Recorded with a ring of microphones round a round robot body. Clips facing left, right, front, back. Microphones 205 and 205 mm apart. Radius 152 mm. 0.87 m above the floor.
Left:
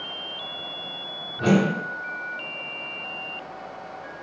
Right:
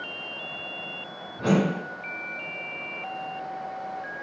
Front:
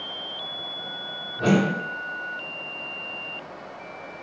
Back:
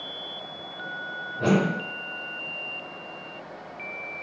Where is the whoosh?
90° left, 1.3 m.